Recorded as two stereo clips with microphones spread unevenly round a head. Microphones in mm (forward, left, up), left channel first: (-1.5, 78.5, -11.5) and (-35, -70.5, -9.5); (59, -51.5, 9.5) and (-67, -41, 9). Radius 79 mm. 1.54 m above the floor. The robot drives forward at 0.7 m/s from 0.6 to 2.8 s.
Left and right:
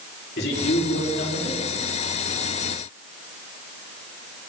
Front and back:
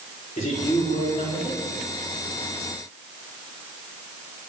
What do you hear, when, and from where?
0.4 s a man speaking: 50° left, 5 m; by 1.6 s 55° left, 4.5 m